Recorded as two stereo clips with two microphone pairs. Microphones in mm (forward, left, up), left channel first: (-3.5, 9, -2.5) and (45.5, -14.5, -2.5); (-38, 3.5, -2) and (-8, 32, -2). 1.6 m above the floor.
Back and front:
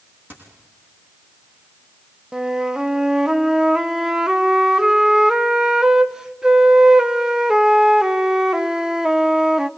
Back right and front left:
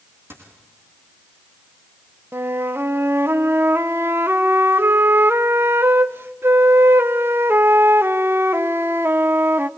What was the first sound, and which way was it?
A dropped coin, 30° left.